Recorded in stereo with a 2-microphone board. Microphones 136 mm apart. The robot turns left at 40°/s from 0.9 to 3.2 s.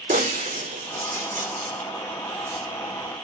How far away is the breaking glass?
About 4 m.